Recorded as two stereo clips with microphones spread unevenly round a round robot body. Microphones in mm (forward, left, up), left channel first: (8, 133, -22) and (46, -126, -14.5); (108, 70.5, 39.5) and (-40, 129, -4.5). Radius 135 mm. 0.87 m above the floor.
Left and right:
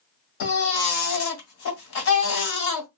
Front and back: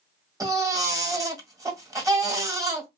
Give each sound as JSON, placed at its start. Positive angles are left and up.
{"t": 0.4, "sound": "a baby crying", "azimuth_deg": 85, "distance_m": 1.3}